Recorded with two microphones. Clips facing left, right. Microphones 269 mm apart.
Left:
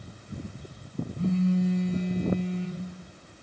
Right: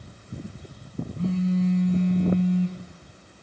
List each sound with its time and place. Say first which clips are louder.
1.2 s a phone buzzing: right 1 dB; 10° left (ahead or behind), 0.8 m